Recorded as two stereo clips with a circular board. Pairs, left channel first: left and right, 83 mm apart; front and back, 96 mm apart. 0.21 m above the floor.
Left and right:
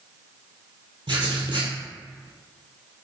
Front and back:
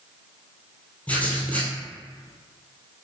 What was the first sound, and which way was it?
Writing, 75° right.